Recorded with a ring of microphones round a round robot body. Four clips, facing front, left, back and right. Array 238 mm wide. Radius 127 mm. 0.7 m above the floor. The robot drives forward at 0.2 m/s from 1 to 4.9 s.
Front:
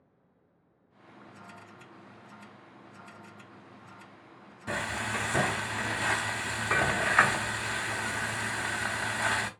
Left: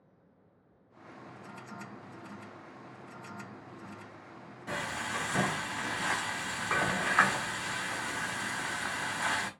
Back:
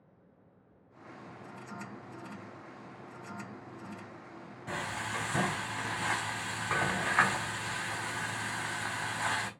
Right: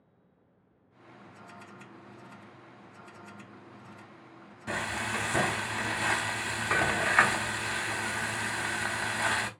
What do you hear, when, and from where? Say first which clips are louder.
4.7 s frying: right 3 dB, front 4 dB; 45° right, 0.5 m; by 9.5 s 55° right, 0.5 m